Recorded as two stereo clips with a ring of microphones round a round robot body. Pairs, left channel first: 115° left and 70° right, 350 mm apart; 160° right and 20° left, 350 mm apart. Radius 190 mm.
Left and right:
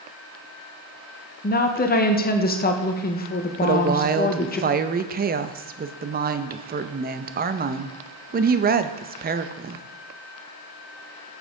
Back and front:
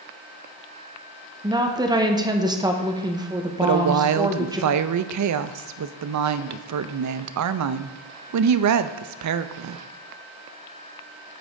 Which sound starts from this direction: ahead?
A woman speaking, at 3.6 s.